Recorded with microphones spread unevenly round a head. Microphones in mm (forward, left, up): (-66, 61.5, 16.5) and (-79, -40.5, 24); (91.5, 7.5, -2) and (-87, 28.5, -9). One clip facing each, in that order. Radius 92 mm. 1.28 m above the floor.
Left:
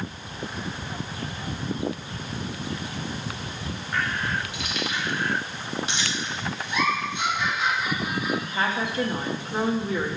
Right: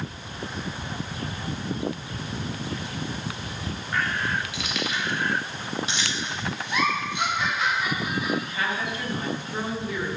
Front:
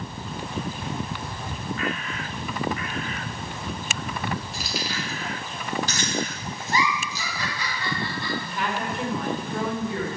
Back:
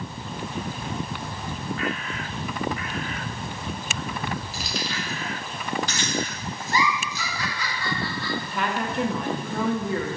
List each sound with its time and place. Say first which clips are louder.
4.5 s keys jangling: even, even; 95° right, 1.4 m; by 7.3 s 35° right, 1.8 m
6.7 s a giggle: even, even; 75° right, 3 m
8.4 s a woman speaking: left 2 dB, back 1 dB; 140° left, 1.8 m